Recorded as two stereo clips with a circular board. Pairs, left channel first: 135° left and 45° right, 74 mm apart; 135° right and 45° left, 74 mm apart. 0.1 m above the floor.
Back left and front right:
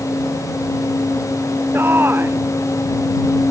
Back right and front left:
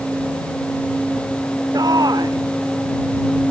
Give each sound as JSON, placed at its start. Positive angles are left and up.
{"t": 1.7, "sound": "a shout", "azimuth_deg": 15}